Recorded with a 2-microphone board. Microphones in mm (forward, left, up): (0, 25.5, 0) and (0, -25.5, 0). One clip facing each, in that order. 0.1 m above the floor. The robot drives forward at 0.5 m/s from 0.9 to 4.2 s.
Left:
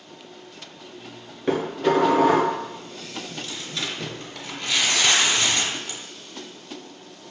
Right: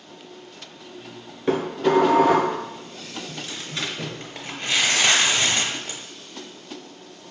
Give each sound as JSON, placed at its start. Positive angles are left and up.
{"t": 1.5, "sound": "dishes clattering", "side_deg": 0, "distance_m": 1.0}
{"t": 3.3, "sound": "tearing paper", "side_deg": -30, "distance_m": 0.7}